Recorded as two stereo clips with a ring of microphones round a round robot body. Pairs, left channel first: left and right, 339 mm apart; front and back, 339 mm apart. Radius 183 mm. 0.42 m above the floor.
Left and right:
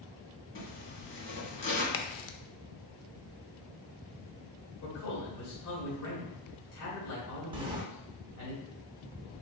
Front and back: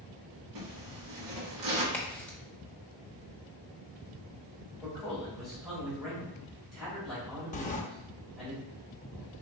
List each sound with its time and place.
0.6 s a zipper: 145° left, 1.7 m
1.9 s a crack: 85° left, 0.5 m
4.8 s a man speaking: 90° left, 1.9 m
7.5 s a sliding door: 30° right, 0.6 m